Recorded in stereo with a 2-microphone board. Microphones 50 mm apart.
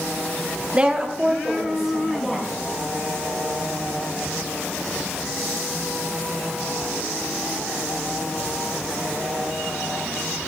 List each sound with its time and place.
0.7 s a woman speaking: 25° right (ahead or behind), 0.7 m; by 2.5 s 5° left (ahead or behind), 2.5 m